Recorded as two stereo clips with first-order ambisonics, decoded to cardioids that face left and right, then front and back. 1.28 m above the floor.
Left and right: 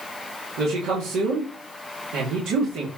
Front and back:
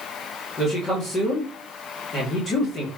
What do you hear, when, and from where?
0.6 s a man speaking: 60° right, 2.5 m